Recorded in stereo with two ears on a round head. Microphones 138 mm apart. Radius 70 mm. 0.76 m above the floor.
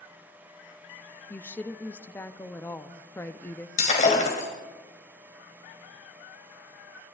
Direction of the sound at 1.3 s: 15° left (ahead or behind).